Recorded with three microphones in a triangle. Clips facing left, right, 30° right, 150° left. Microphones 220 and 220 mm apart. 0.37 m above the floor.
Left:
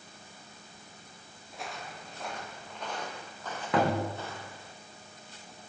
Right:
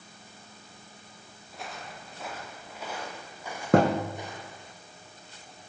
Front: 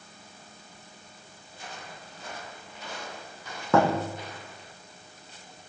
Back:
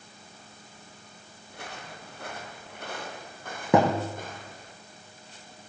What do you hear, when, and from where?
1.5 s footsteps: straight behind, 7.5 m; by 4.7 s 160° right, 6.5 m
3.7 s a thud: 135° right, 4 m